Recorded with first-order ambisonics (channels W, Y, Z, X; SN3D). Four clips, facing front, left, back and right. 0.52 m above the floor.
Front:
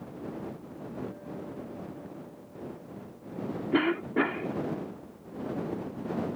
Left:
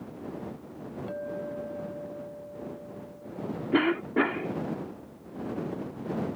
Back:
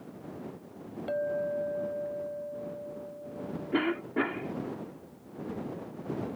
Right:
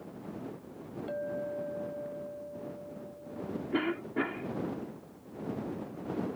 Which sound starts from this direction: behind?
A clink, at 1.1 s.